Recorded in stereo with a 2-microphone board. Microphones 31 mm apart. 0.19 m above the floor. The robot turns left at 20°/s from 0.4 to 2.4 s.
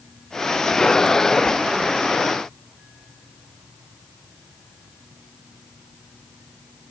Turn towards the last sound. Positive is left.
No sound to turn to.